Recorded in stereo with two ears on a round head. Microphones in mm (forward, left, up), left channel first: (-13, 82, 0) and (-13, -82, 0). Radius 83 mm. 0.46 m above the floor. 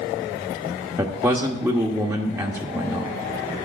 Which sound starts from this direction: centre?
A man speaking, at 1.0 s.